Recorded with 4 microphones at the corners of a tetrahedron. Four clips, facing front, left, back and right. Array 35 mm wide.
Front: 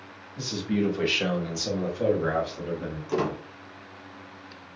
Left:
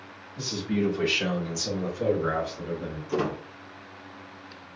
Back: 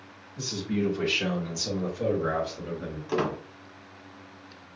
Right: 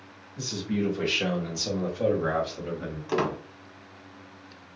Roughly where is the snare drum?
I don't hear a snare drum.